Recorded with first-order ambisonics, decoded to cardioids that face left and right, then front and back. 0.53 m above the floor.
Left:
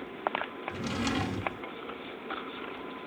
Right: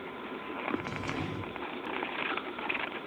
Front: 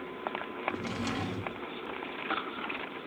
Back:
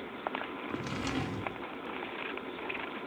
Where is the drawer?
90° left, 0.5 m.